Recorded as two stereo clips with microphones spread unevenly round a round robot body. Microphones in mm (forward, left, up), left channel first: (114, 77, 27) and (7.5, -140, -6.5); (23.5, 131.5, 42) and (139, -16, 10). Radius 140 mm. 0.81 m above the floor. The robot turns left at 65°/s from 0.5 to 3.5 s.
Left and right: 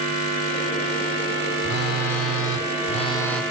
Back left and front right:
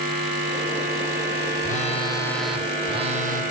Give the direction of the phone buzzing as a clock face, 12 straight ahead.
9 o'clock.